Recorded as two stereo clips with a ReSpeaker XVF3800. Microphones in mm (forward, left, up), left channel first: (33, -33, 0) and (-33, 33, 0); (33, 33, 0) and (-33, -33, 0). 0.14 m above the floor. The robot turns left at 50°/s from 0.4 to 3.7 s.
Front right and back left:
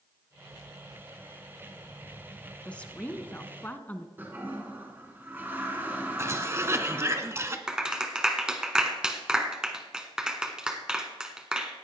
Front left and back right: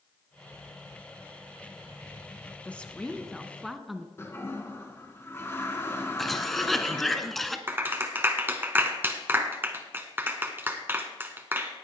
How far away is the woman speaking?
About 1.1 m.